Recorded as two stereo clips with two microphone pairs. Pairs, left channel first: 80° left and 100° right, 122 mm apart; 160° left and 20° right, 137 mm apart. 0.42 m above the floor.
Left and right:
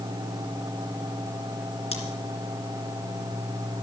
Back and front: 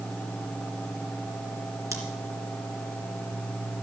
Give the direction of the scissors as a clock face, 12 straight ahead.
10 o'clock.